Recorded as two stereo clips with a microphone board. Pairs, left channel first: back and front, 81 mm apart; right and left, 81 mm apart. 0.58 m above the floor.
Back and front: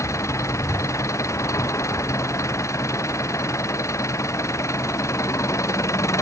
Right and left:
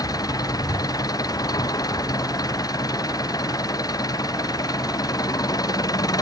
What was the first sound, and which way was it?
An engine running, 130° right.